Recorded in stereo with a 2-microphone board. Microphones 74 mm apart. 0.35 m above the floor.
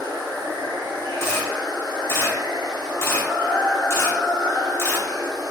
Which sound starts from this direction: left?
A camera shutter, at 1.2 s.